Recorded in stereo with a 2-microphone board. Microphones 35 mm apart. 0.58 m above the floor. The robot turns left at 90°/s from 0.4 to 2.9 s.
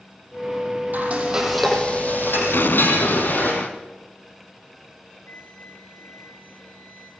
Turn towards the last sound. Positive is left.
turn(degrees=70)  # may be behind; listen again after turning